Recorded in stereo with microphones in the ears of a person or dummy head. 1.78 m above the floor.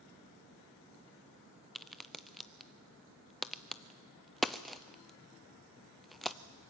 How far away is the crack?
About 0.6 m.